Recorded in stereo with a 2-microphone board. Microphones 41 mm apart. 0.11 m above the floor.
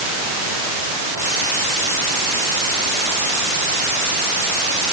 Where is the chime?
I don't hear a chime.